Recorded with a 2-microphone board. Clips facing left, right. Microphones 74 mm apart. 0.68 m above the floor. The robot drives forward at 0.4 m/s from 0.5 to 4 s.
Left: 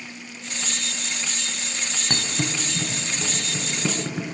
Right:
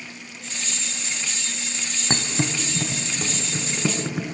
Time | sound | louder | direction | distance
2.1 | a thud | right 3 dB | 25° right (ahead or behind) | 0.6 m